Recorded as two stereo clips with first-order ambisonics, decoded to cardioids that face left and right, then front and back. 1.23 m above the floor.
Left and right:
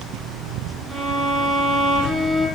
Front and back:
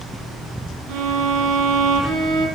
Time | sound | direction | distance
0.9 | a violin | 170° right | 4.5 m